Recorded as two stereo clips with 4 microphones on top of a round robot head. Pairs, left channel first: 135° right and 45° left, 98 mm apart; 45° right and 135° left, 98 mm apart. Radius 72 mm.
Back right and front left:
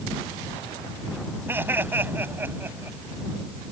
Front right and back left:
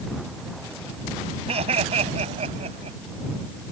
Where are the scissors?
No scissors in this recording.